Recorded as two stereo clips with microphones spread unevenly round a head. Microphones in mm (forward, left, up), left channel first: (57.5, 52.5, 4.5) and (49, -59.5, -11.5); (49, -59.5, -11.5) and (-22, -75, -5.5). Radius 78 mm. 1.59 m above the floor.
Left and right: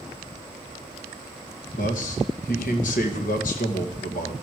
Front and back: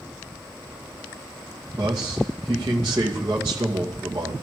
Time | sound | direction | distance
1.8 | a man speaking | 120° left | 2 m